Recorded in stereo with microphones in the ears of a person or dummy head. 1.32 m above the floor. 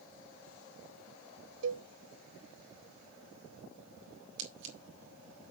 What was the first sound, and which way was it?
A cowbell, 80° right.